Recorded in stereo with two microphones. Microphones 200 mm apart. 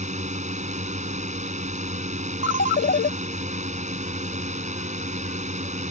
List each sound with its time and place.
0.0 s a drone: 35° right (ahead or behind)
2.4 s a ringtone: 70° left (ahead or behind)